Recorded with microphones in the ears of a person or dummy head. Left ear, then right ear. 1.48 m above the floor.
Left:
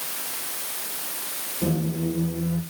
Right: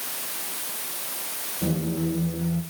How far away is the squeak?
About 4 m.